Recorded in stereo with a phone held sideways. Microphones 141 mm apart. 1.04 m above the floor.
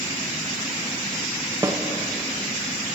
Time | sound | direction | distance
1.6 | a snare drum | 25° right (ahead or behind) | 0.6 m